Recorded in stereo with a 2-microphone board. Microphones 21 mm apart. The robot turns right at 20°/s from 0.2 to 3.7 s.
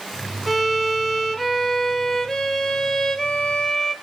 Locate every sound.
0.5 s a violin: 5° left, 1.5 m; by 4.0 s 70° left, 1.5 m